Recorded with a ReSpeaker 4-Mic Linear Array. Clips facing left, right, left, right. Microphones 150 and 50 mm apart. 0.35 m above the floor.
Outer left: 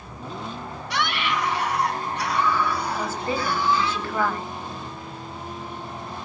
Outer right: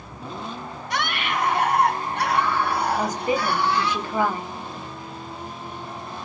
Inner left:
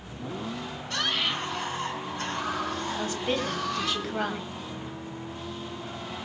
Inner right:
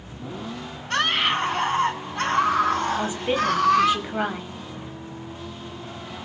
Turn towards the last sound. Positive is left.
turn(degrees=-15)  # may be behind; listen again after turning